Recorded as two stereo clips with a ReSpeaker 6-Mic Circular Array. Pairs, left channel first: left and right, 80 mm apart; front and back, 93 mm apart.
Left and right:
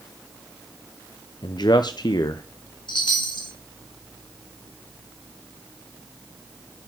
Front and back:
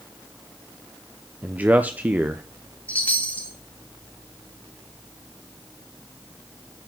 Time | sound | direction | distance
1.4 | a man speaking | 110° left | 0.5 m
2.9 | a chime | 75° left | 2 m